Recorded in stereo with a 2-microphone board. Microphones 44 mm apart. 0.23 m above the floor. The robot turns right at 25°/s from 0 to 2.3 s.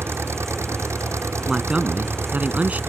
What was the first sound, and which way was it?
An engine running, 120° right.